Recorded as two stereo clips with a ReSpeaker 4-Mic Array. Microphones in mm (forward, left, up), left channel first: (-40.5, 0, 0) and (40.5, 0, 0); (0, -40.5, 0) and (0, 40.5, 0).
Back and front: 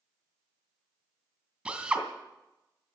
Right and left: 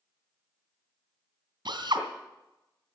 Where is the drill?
80° left, 2.5 m.